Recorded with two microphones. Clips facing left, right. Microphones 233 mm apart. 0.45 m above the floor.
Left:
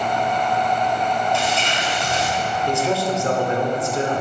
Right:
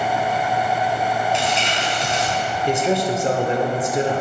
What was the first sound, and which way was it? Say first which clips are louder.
Crumpling: even; 20° right (ahead or behind).